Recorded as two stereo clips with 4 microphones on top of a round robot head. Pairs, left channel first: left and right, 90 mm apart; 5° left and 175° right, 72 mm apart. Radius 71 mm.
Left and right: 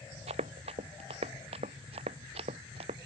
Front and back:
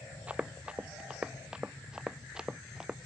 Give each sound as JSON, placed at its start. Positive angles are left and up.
{"t": 0.3, "sound": "running footsteps", "azimuth_deg": -100}